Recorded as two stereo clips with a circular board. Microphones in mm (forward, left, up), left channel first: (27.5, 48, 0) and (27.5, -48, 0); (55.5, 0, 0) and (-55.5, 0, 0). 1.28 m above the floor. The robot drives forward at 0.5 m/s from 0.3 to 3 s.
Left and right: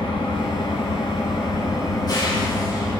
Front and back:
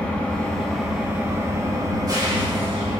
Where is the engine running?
75° left, 1.0 m; by 3.0 s 145° left, 1.5 m.